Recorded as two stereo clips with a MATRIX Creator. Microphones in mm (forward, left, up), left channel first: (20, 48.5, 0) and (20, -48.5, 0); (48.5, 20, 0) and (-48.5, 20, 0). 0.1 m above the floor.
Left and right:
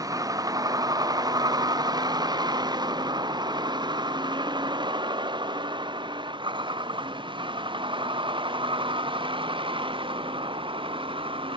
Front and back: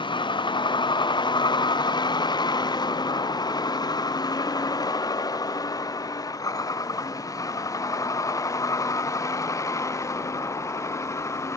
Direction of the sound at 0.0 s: 35° right.